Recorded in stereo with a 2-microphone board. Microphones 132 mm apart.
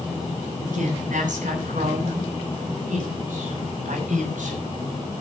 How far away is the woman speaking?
About 8 m.